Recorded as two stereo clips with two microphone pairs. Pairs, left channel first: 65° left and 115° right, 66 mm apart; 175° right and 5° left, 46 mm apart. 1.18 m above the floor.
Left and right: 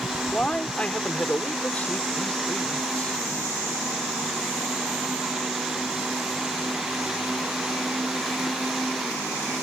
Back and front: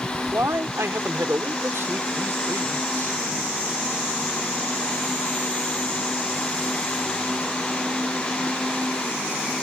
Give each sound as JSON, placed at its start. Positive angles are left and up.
{"t": 0.3, "sound": "a man speaking", "azimuth_deg": -10}